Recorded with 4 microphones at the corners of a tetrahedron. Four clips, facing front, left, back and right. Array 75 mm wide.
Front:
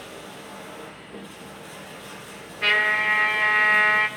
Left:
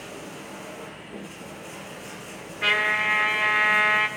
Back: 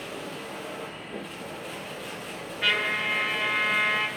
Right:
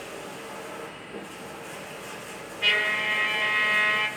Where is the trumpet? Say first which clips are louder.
Left 2 dB, front 5 dB; 60° left, 1.4 m.